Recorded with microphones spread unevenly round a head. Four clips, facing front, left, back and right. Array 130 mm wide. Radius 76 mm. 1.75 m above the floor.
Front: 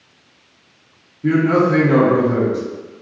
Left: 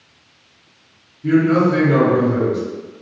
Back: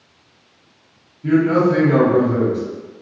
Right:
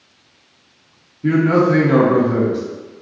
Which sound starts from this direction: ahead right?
A man speaking, at 1.2 s.